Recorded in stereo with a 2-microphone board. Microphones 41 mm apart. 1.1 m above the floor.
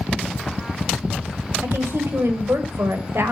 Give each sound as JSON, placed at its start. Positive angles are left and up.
{"t": 1.6, "sound": "a woman speaking", "side_deg": -85, "distance_m": 5.0}